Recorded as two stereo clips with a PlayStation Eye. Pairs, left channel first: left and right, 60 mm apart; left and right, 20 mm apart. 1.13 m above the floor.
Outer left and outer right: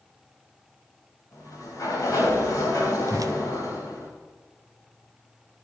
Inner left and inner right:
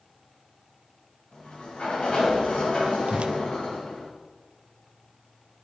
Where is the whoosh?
70° right (ahead or behind), 0.5 m.